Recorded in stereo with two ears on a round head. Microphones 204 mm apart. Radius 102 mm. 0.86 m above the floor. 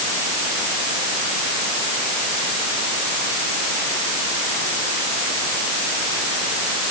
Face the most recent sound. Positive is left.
No sound to turn to.